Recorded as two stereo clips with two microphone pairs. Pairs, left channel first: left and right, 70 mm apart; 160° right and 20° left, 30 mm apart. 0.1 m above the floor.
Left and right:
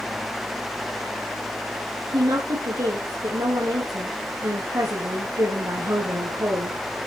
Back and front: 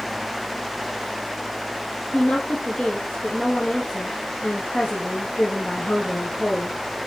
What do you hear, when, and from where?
2.1 s a woman speaking: 110° right, 3.5 m